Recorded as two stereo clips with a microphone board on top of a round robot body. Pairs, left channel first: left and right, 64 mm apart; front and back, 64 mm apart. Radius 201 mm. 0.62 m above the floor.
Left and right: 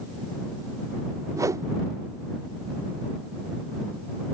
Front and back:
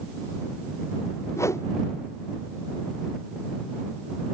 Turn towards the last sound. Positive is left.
turn(degrees=-50)